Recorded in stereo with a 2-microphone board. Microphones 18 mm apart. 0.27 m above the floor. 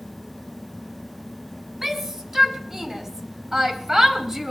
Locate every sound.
1.8 s a shout: 20° right (ahead or behind), 2.5 m